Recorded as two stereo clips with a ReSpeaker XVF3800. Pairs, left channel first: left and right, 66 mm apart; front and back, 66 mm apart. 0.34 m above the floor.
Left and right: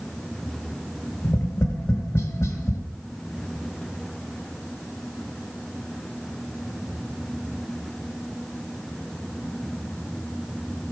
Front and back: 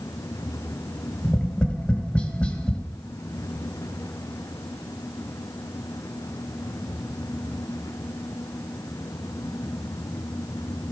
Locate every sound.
1.2 s tapping: 65° left, 1.4 m